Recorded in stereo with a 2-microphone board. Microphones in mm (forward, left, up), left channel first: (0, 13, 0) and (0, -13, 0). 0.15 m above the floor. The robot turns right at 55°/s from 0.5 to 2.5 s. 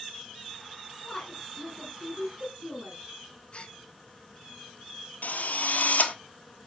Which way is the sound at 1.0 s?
20° left (ahead or behind).